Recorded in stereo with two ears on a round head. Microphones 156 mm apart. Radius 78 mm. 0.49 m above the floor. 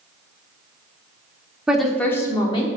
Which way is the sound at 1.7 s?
5° right (ahead or behind).